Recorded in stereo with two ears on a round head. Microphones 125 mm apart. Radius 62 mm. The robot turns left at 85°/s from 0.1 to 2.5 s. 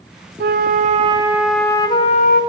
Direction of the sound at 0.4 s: 85° right.